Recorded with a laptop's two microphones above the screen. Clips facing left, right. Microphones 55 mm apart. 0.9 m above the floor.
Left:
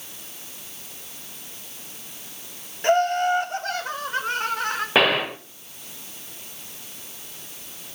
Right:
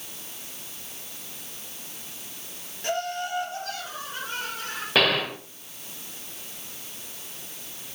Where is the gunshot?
20° left (ahead or behind), 0.7 m.